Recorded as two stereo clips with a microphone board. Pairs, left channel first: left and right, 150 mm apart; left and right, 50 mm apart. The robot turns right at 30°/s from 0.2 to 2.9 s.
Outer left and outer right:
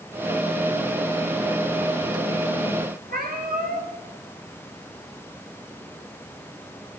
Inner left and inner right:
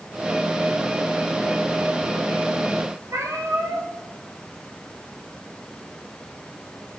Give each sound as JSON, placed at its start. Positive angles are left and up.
{"t": 3.1, "sound": "a cat meowing", "side_deg": -70, "distance_m": 3.5}